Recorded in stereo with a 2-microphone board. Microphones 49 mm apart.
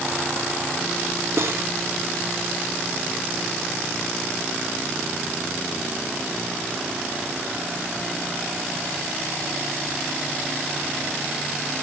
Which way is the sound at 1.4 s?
60° right (ahead or behind).